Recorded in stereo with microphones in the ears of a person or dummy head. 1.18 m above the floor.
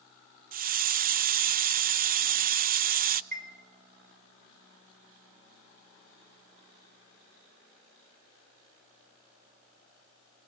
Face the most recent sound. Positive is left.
turn(degrees=-50)  # may be behind; listen again after turning